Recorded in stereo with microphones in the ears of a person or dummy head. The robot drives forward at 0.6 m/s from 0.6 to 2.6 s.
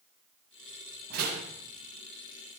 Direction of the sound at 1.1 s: 40° right (ahead or behind).